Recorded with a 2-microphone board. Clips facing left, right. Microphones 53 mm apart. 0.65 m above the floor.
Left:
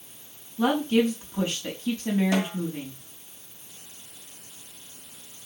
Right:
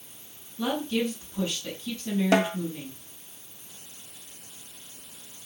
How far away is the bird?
I don't hear a bird.